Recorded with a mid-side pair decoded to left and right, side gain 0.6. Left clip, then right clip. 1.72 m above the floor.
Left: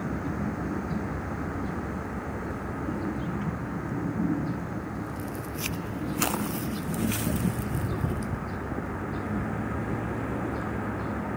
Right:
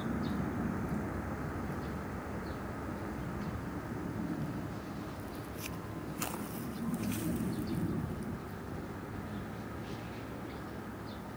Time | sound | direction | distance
0.0 | a vehicle | 35° left | ?